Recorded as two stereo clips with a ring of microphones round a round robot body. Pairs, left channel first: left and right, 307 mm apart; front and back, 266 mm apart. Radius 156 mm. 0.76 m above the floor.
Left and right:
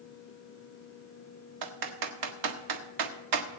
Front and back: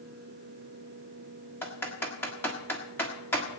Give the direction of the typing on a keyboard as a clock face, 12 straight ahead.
3 o'clock.